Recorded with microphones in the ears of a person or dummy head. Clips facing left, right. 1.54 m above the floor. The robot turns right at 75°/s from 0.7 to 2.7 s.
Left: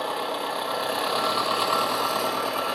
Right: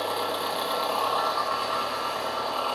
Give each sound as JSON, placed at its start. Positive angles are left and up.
{"t": 0.0, "sound": "an engine running", "azimuth_deg": 0, "distance_m": 1.0}